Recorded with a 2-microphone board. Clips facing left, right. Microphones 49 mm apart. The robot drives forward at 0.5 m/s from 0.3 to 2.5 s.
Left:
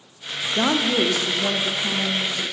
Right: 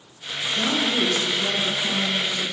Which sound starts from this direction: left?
A woman speaking, at 0.5 s.